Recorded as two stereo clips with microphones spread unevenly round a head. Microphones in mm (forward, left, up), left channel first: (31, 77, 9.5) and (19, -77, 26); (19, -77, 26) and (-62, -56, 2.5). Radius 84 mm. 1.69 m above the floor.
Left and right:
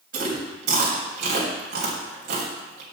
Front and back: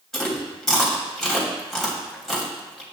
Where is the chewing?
90° right, 3 m.